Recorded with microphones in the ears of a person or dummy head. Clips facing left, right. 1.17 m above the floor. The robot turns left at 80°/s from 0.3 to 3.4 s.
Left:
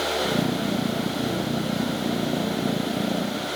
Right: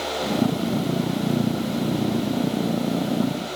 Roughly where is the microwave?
I don't hear a microwave.